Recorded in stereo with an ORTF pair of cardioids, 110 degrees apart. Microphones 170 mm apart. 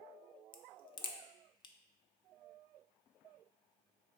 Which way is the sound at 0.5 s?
30° left.